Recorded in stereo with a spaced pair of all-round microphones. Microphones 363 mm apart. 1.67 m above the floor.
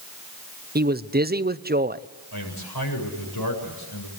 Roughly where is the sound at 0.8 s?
Right.